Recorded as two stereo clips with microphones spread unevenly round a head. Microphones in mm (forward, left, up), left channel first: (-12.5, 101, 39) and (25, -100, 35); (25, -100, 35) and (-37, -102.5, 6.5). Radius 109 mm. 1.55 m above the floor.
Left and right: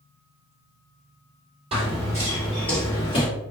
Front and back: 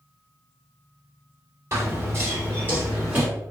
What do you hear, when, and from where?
1.7 s running footsteps: 125° right, 1.8 m; by 3.3 s 85° left, 1.7 m